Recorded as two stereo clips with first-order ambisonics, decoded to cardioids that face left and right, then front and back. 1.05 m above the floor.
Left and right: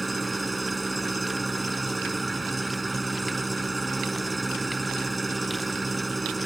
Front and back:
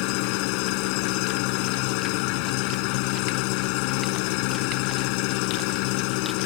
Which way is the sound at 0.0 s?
10° right.